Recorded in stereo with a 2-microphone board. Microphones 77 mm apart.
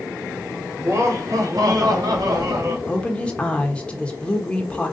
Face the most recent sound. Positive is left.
turn(degrees=15)  # may be behind; listen again after turning